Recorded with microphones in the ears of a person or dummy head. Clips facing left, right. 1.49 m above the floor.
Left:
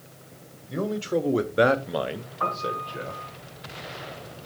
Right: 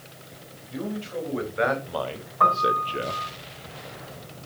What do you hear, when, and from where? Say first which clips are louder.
0.7 s a man speaking: left 5 dB; 55° left (ahead or behind), 1.5 m; by 3.2 s 50° right (ahead or behind), 0.9 m
2.4 s a piano: right 7 dB; 65° right (ahead or behind), 4 m